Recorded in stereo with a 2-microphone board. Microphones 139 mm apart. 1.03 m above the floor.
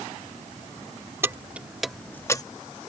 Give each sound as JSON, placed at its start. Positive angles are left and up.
{"t": 1.2, "sound": "keys jangling", "side_deg": -15}